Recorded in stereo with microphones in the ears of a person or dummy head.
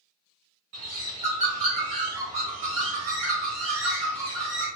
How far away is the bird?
About 1.3 m.